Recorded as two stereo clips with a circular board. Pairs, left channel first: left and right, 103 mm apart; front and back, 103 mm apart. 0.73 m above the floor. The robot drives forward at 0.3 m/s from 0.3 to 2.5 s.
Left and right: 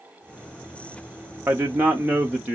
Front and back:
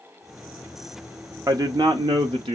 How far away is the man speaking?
About 0.5 m.